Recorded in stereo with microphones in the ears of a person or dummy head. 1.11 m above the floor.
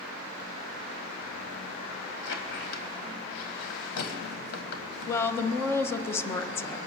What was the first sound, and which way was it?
A squeak, 65° left (ahead or behind).